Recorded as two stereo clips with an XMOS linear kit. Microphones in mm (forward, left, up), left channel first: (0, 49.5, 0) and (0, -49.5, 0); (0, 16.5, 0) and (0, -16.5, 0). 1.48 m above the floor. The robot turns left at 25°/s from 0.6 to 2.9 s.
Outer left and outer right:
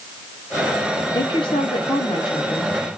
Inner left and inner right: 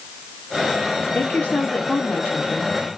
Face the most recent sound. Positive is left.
turn(degrees=40)